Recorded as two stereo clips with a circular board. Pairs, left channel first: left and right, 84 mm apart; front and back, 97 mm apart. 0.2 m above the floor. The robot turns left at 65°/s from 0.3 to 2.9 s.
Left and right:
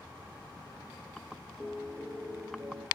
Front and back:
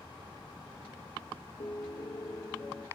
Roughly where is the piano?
Ahead.